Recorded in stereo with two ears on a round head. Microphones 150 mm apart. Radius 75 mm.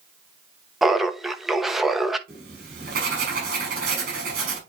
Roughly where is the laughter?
Centre.